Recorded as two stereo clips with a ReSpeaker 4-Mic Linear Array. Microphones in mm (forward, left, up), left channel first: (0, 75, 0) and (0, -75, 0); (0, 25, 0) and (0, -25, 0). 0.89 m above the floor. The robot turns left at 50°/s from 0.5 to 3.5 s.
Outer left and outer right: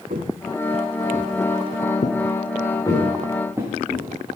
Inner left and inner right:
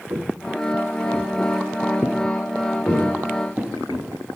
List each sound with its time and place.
0.1 s footsteps: 65° right (ahead or behind), 2 m; by 3.7 s 20° right (ahead or behind), 4 m
2.9 s footsteps: 30° left (ahead or behind), 9.5 m; by 4.1 s 5° left (ahead or behind), 8.5 m